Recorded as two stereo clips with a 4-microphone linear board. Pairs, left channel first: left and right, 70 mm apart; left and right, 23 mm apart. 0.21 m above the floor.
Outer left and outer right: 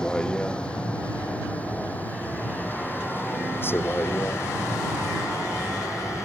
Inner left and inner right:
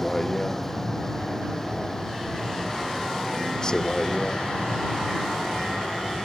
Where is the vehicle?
10° left (ahead or behind); by 6.3 s 45° left (ahead or behind).